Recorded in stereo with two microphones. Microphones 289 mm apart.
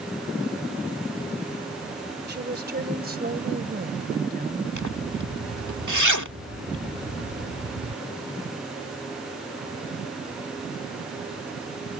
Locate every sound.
2.3 s a woman speaking: 35° right (ahead or behind); by 4.7 s 30° right (ahead or behind)
4.8 s a zipper: 80° right